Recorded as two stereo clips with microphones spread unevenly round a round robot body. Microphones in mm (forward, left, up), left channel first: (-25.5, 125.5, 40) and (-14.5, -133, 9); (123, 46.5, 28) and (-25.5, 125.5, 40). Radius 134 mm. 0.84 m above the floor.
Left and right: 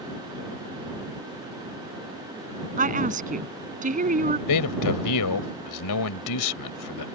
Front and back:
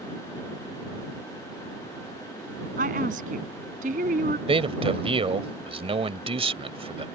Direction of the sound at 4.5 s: 100° left.